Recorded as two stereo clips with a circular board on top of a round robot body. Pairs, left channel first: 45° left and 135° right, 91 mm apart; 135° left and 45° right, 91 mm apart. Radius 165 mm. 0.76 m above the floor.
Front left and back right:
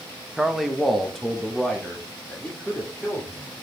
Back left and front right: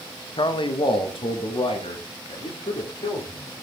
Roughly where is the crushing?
No crushing in this recording.